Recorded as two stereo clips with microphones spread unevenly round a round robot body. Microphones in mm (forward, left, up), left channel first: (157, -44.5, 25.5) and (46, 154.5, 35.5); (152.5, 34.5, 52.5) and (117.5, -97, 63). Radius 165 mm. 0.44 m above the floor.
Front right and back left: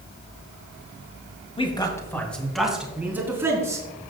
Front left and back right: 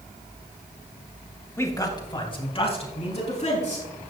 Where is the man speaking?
5° left, 2.5 m; by 4.1 s 45° left, 5 m.